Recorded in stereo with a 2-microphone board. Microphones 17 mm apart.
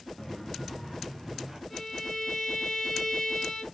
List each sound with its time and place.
0.2 s footsteps: 10° left (ahead or behind), 1.5 m; by 1.6 s 10° right (ahead or behind), 1.9 m
1.7 s a violin: centre (ahead or behind), 3 m